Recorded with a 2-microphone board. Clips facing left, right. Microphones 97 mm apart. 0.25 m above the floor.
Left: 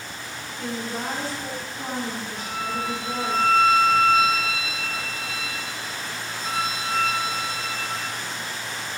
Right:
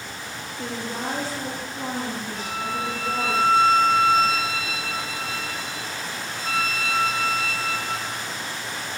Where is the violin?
75° right (ahead or behind), 6 m.